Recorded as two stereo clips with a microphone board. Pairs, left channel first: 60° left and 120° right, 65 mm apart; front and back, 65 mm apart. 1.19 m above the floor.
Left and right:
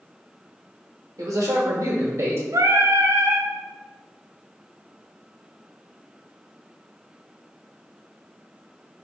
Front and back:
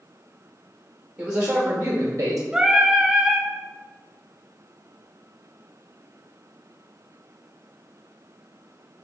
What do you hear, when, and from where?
1.2 s a man speaking: 105° right, 1.2 m; by 2.4 s 150° right, 0.8 m
2.5 s singing: 100° right, 0.6 m